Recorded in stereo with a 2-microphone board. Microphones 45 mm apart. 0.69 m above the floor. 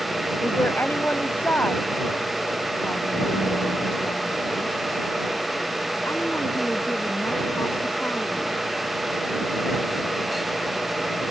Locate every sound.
0.4 s a woman speaking: 50° left (ahead or behind); by 8.6 s 65° left (ahead or behind)